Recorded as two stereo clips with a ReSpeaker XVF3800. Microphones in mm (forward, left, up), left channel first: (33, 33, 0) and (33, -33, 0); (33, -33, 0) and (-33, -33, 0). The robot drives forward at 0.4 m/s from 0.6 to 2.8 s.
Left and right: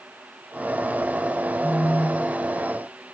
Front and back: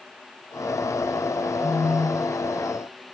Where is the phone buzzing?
140° left, 2 m; by 2.4 s 145° left, 2.5 m.